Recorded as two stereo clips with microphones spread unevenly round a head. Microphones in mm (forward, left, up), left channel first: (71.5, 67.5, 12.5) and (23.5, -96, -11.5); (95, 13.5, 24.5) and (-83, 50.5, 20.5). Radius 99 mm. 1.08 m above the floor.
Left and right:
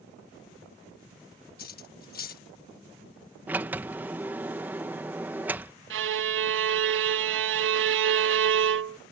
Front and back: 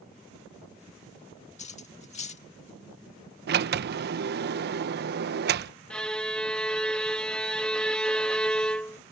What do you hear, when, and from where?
1.6 s cutlery clinking: 40° left
3.5 s a sliding door: straight behind
5.9 s a violin: 95° right